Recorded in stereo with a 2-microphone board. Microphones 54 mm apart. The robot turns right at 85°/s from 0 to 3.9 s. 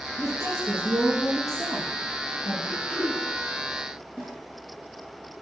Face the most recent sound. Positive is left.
turn(degrees=-20)  # may be behind; listen again after turning